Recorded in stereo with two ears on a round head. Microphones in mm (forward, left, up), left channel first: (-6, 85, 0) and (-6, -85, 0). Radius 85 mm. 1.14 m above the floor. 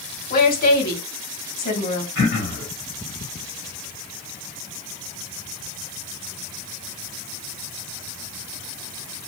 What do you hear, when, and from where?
0.3 s a woman speaking: 50° left (ahead or behind), 1.5 m
2.1 s throat clearing: 65° left (ahead or behind), 2.5 m